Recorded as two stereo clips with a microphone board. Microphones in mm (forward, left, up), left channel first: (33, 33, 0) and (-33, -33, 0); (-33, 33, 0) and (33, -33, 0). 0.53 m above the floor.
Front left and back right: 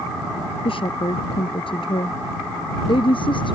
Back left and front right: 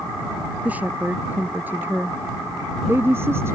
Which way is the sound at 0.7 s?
30° left.